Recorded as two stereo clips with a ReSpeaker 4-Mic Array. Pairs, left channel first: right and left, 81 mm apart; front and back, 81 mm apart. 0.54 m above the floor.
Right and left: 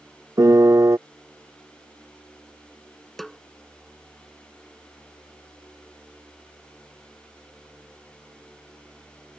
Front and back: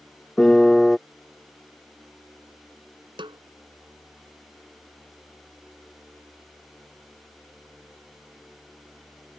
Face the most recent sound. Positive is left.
turn(degrees=-175)